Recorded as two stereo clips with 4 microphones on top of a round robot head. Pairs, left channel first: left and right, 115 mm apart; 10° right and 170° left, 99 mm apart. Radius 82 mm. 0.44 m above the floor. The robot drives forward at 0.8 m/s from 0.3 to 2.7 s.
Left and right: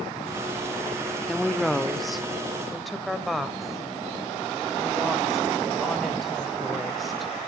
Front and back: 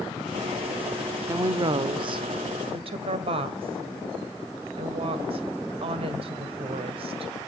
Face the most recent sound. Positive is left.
turn(degrees=180)